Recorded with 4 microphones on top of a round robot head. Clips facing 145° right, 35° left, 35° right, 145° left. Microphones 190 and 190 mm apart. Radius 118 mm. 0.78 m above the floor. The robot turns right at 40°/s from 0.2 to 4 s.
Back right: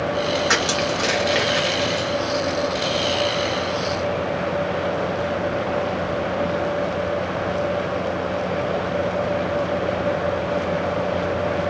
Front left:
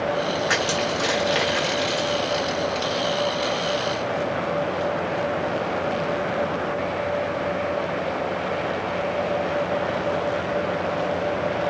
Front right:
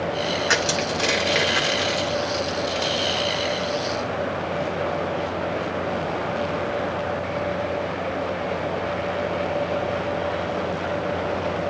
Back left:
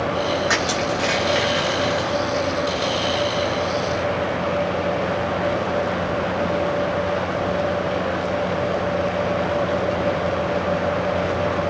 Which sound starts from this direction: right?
Crushing, at 0.5 s.